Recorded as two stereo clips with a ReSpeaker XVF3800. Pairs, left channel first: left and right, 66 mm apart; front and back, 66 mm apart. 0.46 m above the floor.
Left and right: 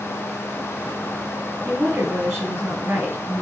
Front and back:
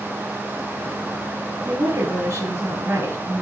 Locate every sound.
1.6 s a woman speaking: 145° right, 7 m